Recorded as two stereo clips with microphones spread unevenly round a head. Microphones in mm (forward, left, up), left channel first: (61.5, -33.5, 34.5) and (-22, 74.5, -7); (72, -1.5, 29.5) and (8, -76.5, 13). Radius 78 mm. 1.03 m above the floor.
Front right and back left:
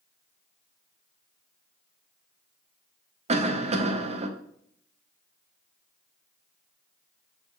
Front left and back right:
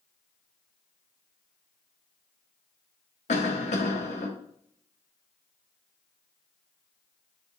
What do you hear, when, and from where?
3.3 s a cough: 90° left, 1.1 m